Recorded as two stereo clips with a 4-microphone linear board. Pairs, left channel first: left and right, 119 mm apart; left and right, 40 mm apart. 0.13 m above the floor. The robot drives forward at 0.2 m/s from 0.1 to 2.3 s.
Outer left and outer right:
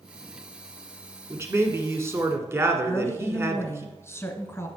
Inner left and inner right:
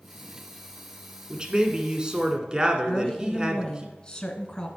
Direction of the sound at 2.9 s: 20° left (ahead or behind).